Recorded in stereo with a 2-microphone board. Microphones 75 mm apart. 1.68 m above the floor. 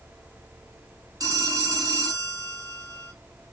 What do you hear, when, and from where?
1.2 s a phone ringing: 60° right (ahead or behind), 2.0 m